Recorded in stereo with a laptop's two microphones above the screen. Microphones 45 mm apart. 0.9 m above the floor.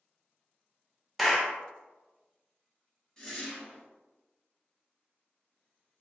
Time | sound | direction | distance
1.2 | a clap | centre (ahead or behind) | 0.7 m
3.2 | a whoosh | 15° left (ahead or behind) | 0.9 m